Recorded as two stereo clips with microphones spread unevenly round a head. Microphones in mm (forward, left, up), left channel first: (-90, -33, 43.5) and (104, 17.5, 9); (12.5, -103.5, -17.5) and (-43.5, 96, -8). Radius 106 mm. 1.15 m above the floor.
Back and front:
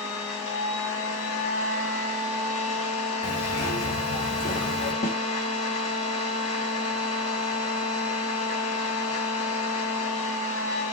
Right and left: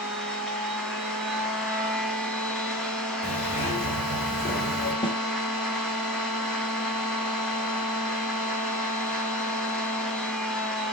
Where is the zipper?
135° right, 4 m.